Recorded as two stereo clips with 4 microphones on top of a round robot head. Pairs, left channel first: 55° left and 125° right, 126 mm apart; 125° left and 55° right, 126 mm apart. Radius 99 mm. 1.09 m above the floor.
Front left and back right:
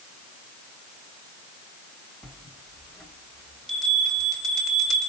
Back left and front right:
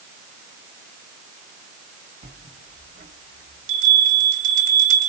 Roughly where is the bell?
Ahead right.